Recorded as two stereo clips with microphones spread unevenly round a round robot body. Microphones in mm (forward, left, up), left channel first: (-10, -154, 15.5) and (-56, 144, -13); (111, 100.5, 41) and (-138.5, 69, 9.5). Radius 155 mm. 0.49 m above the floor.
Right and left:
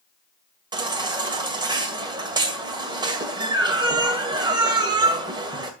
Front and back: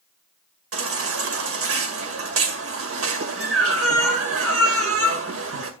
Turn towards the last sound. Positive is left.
turn(degrees=170)